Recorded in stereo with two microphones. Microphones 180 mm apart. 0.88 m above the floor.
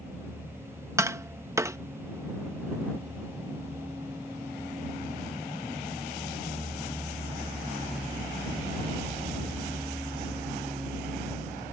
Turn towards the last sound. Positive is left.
turn(degrees=-15)  # may be behind; listen again after turning